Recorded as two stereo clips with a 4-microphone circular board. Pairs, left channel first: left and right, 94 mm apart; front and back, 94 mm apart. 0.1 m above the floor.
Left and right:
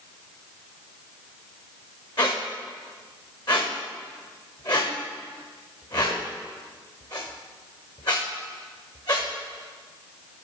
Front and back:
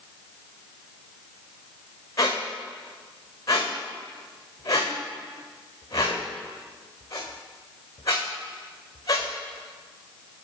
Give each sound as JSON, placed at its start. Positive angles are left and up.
{"t": 2.2, "sound": "a squeak", "azimuth_deg": 50, "distance_m": 2.0}